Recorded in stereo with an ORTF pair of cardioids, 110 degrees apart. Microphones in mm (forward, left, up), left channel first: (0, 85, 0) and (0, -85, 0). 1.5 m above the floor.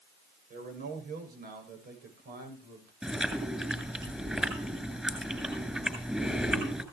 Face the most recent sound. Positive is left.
turn(degrees=-5)